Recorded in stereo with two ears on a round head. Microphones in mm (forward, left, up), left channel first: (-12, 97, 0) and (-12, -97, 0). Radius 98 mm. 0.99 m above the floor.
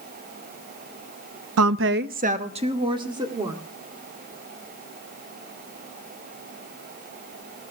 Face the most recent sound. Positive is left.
turn(degrees=-20)  # may be behind; listen again after turning